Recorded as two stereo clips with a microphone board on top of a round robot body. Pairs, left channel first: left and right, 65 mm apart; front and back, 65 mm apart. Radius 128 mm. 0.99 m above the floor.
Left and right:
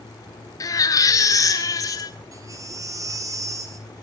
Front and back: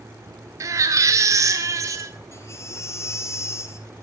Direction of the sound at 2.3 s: 50° right.